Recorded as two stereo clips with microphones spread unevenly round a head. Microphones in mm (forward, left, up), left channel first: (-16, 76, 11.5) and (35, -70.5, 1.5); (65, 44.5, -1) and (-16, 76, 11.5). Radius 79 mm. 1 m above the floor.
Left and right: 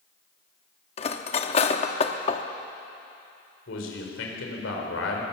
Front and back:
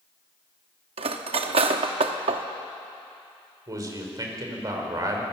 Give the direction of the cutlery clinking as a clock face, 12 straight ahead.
7 o'clock.